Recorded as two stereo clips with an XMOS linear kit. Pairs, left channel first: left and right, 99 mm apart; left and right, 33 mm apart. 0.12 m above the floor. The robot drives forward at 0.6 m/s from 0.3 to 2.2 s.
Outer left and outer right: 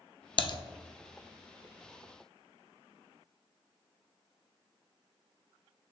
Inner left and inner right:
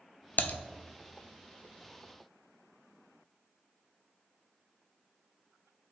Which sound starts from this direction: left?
Typing on a keyboard, at 0.4 s.